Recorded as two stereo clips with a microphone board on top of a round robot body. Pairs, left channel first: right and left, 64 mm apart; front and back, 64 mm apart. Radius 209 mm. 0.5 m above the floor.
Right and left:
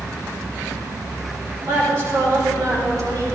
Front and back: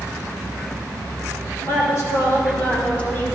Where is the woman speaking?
35° left, 5 m; by 3.2 s 55° left, 5.5 m.